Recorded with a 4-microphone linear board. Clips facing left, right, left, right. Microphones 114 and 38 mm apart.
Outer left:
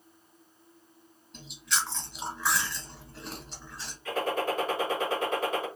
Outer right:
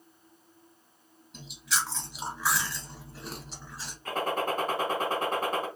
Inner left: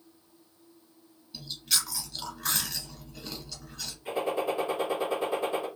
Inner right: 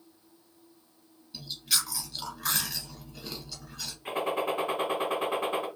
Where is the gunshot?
45° right (ahead or behind), 1.4 m.